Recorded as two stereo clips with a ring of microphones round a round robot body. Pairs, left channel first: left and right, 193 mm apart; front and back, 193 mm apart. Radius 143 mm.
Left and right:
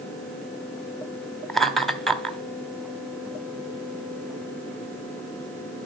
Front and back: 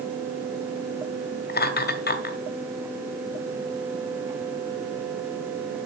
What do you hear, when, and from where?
1.5 s laughter: straight ahead, 1.5 m